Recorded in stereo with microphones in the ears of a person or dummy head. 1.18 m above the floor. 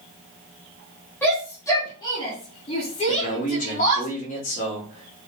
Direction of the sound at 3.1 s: 40° left (ahead or behind).